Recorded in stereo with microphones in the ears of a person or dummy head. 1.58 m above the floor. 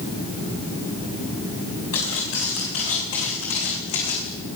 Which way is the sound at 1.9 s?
80° left.